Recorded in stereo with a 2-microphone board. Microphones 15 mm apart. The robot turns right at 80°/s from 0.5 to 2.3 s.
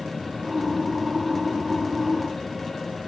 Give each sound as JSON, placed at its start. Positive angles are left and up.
{"t": 0.0, "sound": "an aircraft", "azimuth_deg": -5}